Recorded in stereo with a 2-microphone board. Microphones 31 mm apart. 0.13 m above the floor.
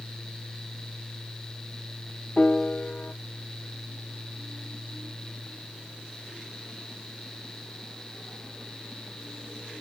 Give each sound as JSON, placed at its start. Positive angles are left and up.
{"t": 2.4, "sound": "a piano", "side_deg": 40, "distance_m": 1.1}